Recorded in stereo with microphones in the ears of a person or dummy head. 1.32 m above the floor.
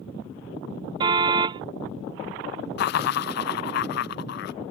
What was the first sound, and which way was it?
A car horn, 25° right (ahead or behind).